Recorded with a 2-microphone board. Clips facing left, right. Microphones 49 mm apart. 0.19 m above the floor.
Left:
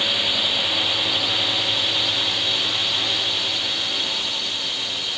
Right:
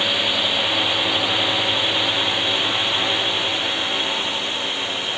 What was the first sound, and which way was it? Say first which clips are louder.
A drone: right 2 dB; 15° right (ahead or behind).